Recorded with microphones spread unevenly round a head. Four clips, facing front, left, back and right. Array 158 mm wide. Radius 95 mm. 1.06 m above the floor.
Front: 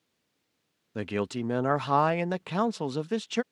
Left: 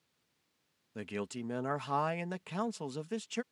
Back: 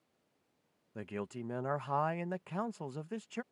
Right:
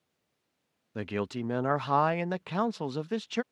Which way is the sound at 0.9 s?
20° right.